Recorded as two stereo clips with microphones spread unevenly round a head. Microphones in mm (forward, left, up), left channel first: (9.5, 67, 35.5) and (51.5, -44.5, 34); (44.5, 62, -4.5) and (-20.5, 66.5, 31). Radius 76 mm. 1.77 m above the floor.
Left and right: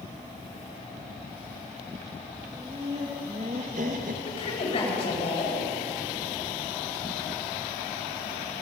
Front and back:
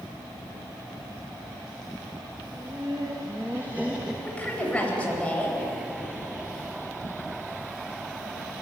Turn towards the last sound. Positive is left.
turn(degrees=70)